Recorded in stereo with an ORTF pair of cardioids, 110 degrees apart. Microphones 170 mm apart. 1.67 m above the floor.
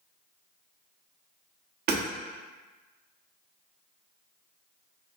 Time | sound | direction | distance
1.9 | hammering | 70° right | 1.2 m